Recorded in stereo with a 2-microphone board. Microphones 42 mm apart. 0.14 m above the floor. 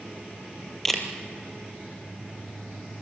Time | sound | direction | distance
0.8 | a camera shutter | 10° left (ahead or behind) | 3 m